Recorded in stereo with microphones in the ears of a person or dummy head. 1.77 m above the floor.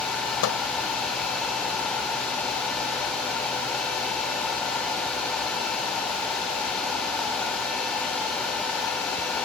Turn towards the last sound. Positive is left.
turn(degrees=75)  # may be behind; listen again after turning